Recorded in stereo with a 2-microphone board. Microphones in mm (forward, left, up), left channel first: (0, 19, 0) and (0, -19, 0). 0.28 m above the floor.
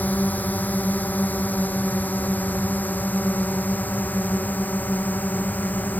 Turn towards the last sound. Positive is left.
turn(degrees=50)  # may be behind; listen again after turning